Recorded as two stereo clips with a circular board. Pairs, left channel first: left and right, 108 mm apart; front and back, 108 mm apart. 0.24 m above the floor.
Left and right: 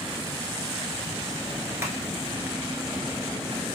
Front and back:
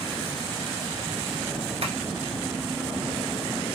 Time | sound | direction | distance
1.8 | tapping | 155° right | 1.0 m